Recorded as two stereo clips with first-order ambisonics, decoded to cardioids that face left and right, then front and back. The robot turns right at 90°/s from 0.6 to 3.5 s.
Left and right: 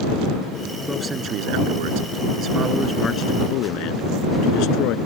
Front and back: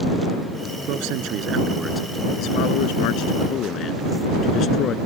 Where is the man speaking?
Straight behind; by 5.0 s 55° left.